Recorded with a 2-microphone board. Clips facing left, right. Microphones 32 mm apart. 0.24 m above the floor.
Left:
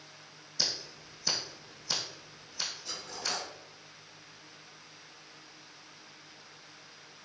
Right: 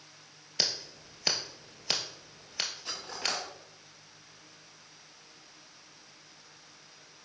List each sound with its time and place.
0.6 s scissors: 70° right (ahead or behind), 1.1 m
2.9 s cutlery clinking: 45° right (ahead or behind), 1.0 m